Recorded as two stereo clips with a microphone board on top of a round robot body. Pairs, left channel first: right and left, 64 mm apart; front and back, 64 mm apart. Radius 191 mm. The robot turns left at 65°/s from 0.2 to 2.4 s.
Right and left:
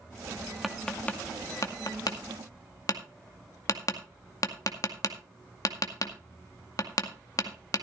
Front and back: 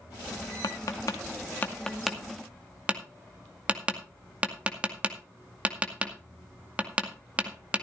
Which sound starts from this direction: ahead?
Tapping, at 0.6 s.